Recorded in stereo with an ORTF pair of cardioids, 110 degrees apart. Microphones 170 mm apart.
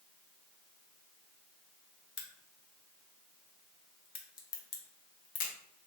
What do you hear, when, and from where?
2.2 s a crack: 65° left, 0.8 m